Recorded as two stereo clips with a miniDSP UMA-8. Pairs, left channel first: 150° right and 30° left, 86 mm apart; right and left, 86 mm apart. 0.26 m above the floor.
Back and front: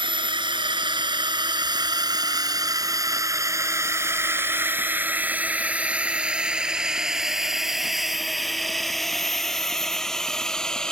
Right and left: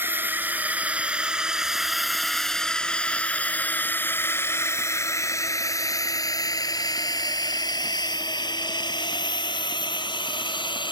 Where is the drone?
25° left; by 10.9 s 70° right.